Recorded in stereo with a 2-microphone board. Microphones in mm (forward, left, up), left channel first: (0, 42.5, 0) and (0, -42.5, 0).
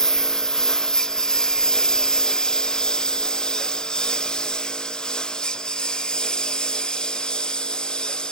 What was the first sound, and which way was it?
A lawn mower, 5° left (ahead or behind).